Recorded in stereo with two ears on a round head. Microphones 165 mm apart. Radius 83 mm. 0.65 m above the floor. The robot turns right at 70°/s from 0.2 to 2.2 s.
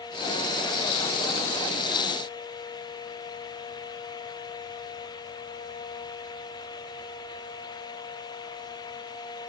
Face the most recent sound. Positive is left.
No sound to turn to.